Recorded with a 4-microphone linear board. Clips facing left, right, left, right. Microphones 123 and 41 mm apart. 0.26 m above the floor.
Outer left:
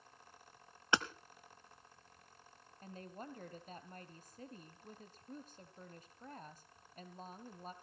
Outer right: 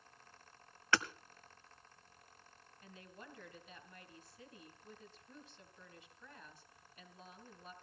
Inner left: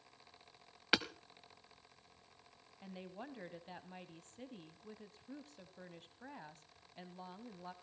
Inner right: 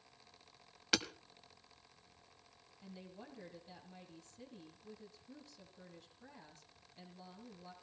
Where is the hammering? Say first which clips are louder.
Even, inner left 2 dB; 20° left (ahead or behind), 1.1 m.